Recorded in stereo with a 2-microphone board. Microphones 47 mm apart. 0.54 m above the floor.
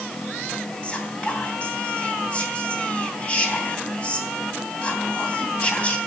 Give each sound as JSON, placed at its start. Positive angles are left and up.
{"t": 0.8, "sound": "whispering", "side_deg": 30, "distance_m": 3.0}